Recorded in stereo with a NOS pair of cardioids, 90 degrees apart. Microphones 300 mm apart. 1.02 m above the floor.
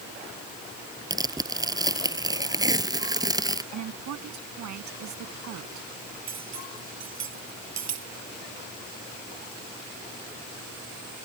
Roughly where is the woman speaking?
Ahead right.